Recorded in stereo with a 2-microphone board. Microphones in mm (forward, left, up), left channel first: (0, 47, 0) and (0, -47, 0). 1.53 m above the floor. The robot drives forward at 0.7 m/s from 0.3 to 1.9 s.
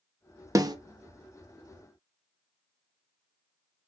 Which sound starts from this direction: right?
A snare drum, at 0.6 s.